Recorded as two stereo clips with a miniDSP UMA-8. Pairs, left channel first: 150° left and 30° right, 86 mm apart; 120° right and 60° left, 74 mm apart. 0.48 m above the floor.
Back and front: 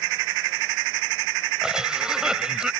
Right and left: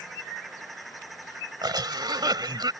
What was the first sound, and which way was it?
A cough, 50° left.